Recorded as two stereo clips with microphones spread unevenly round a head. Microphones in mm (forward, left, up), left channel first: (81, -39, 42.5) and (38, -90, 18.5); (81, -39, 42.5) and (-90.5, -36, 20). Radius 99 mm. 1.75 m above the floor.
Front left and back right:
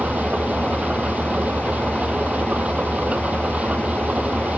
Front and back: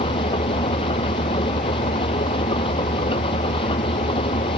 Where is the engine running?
60° right.